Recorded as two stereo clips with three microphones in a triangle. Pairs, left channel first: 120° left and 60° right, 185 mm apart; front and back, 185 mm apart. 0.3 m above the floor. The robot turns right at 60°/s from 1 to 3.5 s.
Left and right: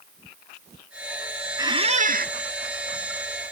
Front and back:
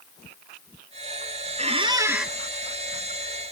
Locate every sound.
1.6 s a squeak: 135° right, 0.6 m; by 2.3 s 90° right, 0.6 m